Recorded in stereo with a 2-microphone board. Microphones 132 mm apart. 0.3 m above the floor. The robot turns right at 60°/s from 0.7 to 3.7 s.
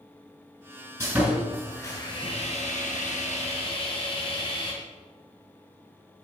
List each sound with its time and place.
1.0 s sawing: 20° right, 2.5 m; by 4.7 s 140° left, 2.5 m